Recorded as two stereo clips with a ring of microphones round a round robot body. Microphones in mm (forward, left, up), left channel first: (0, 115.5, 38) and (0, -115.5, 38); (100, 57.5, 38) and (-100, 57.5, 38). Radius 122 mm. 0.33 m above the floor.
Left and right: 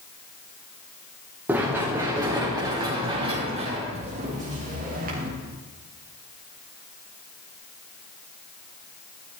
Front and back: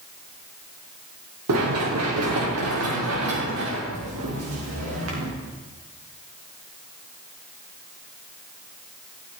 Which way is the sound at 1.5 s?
175° right.